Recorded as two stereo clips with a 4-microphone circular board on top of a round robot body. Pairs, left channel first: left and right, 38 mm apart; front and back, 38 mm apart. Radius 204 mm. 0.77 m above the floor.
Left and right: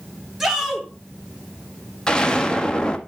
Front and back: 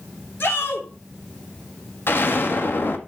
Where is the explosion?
20° left, 1.9 m.